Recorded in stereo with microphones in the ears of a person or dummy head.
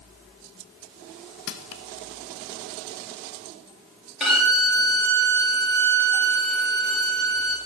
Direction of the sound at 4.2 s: 5° right (ahead or behind).